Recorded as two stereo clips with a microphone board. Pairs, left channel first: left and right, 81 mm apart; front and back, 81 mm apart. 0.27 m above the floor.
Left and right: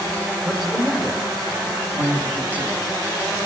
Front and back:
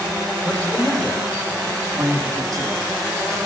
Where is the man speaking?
25° right, 1.0 m; by 2.8 s 155° left, 2 m.